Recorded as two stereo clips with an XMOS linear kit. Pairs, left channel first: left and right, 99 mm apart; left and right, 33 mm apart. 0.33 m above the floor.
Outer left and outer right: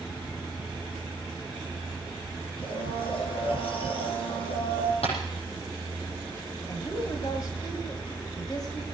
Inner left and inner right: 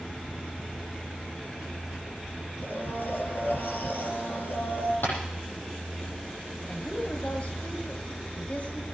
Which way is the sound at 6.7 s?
45° left (ahead or behind).